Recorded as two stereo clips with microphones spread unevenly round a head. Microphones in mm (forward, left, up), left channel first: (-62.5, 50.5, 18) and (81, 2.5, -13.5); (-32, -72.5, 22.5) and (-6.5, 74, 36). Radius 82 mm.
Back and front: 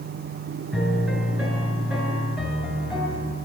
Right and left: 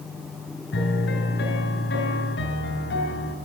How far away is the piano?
About 3.5 m.